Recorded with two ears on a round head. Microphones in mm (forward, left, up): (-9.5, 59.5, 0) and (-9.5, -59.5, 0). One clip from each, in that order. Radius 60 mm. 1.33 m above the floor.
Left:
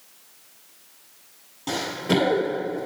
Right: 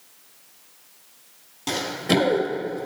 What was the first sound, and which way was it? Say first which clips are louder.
Running footsteps: right 1 dB; 35° right (ahead or behind).